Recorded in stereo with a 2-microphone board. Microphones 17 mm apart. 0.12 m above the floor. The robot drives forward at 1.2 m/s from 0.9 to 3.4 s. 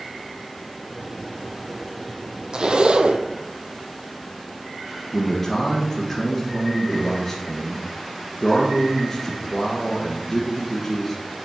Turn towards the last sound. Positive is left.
turn(degrees=10)  # may be behind; listen again after turning